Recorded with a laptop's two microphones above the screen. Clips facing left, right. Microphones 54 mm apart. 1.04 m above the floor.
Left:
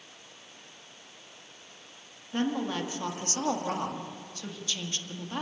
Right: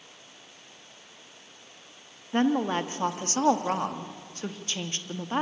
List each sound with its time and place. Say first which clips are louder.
2.3 s a woman speaking: right 5 dB; 35° right (ahead or behind), 1.7 m